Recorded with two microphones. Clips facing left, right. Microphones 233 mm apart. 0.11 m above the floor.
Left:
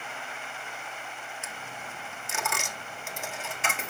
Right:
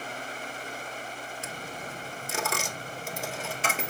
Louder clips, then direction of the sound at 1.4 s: Right 4 dB; 40° right (ahead or behind).